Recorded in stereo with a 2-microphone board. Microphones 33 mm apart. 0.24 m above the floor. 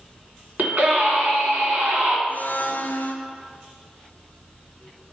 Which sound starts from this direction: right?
A scream, at 0.6 s.